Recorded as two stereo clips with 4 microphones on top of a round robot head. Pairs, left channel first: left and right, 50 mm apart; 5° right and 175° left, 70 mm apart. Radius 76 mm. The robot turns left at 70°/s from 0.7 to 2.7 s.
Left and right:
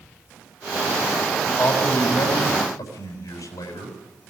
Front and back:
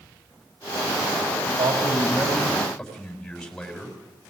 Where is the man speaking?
170° left, 6.5 m; by 3.9 s 80° left, 6.5 m.